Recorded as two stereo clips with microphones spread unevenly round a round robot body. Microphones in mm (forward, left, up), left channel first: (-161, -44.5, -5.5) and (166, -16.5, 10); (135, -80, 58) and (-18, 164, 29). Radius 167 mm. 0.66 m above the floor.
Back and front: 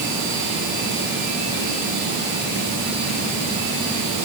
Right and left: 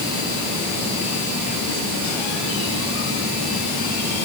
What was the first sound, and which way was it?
Only background noise.